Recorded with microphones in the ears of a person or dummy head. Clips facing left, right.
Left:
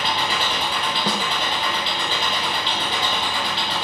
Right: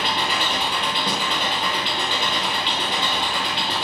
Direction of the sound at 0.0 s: 50° right (ahead or behind).